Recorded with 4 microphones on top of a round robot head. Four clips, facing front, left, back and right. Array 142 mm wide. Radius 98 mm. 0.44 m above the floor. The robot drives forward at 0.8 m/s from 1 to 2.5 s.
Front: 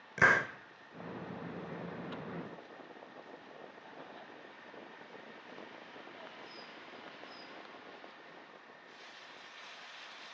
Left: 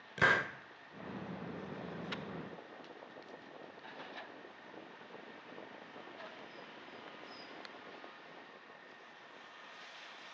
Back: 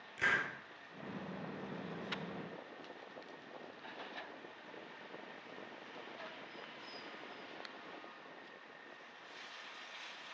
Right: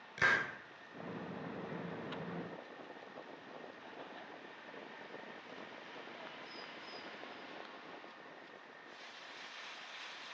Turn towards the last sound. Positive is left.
turn(degrees=115)